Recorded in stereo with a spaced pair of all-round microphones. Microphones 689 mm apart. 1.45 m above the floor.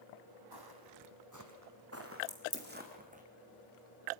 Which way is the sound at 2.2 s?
75° right (ahead or behind).